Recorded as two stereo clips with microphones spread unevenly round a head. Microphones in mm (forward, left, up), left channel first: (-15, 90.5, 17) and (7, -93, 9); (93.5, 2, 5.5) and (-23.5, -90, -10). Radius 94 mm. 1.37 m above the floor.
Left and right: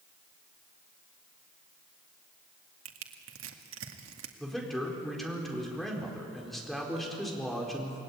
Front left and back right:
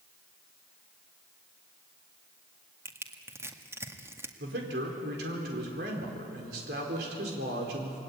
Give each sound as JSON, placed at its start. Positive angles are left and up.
{"t": 2.9, "sound": "crushing", "azimuth_deg": -70, "distance_m": 2.0}
{"t": 4.4, "sound": "a man speaking", "azimuth_deg": -175, "distance_m": 4.5}